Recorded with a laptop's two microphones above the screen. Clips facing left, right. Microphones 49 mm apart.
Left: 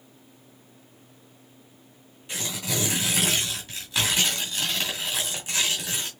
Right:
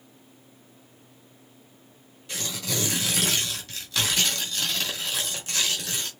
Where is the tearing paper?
15° left (ahead or behind), 1.8 m.